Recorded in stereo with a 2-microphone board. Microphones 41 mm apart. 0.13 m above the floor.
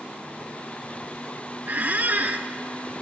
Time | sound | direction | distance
1.7 | a squeak | 45° right (ahead or behind) | 0.8 m